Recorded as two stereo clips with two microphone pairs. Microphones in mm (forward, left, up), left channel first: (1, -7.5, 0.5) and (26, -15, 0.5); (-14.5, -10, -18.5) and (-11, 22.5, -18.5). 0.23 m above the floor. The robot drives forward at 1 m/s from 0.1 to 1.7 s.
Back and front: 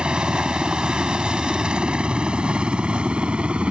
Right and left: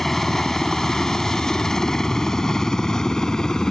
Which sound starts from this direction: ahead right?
A helicopter, at 0.0 s.